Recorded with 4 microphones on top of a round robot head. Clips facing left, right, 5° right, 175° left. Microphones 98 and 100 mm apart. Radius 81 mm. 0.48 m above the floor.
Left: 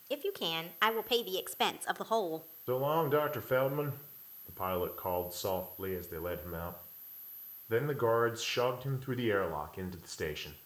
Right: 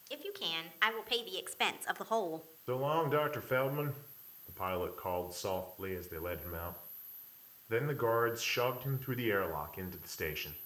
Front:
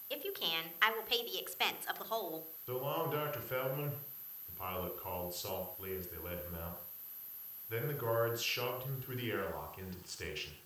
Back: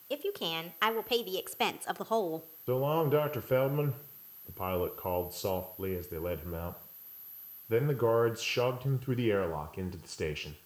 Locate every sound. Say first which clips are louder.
0.1 s a woman speaking: left 7 dB, back 7 dB; 130° left, 1.9 m; by 2.5 s 175° left, 1.0 m
2.7 s a man speaking: left 2 dB, back 9 dB; 165° left, 1.8 m